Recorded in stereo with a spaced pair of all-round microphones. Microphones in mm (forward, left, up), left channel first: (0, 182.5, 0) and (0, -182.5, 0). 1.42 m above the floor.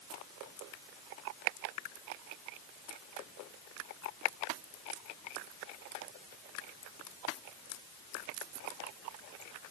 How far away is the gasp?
No gasp in this recording.